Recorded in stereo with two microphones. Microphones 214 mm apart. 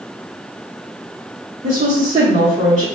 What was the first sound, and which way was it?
A woman speaking, 35° right (ahead or behind).